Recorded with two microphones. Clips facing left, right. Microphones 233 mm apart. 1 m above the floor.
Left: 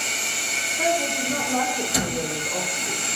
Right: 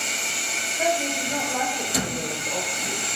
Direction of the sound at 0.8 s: 55° left (ahead or behind).